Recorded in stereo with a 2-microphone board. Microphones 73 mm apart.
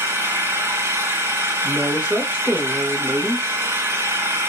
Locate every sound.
0.0 s an engine running: 35° right (ahead or behind), 2 m
1.6 s a woman speaking: 15° right (ahead or behind), 1.1 m